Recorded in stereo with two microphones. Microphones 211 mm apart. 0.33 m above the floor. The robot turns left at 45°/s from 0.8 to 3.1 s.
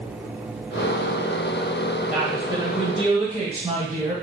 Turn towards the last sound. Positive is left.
turn(degrees=-55)